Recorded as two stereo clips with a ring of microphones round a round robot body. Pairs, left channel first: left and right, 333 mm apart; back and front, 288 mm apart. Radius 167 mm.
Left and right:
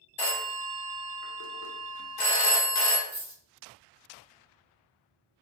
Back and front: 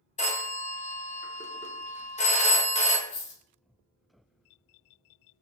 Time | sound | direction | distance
0.2 | a phone ringing | 110° left | 0.8 m
3.1 | a dropped coin | 175° right | 1.0 m